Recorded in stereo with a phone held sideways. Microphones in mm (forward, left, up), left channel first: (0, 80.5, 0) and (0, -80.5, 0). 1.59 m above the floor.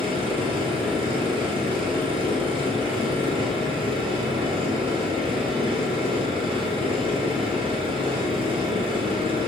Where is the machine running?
35° right (ahead or behind), 0.9 m.